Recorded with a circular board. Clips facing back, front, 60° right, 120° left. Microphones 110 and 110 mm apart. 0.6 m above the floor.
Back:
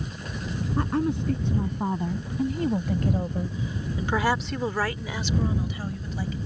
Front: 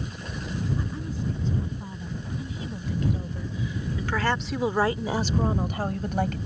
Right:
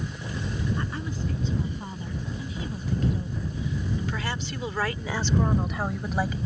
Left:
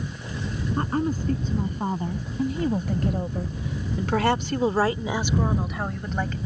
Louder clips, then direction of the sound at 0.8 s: Back 8 dB, left 7 dB; 165° left.